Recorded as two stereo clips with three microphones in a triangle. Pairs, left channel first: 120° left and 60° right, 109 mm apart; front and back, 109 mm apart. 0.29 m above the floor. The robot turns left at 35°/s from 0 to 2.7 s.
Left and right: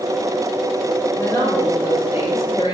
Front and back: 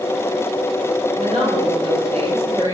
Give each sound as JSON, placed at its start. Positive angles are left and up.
{"t": 1.2, "sound": "a woman speaking", "azimuth_deg": -175, "distance_m": 5.0}